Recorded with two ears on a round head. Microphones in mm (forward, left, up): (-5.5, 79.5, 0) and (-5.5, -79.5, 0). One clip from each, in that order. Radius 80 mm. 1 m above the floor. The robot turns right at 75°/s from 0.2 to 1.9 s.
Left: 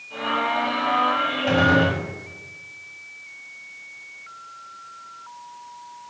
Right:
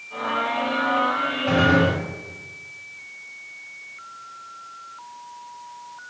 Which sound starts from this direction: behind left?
A gunshot, at 1.5 s.